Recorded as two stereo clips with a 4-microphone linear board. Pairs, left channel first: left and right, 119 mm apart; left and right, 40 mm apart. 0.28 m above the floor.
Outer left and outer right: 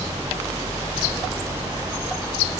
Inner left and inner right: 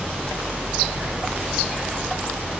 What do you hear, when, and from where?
Only background noise.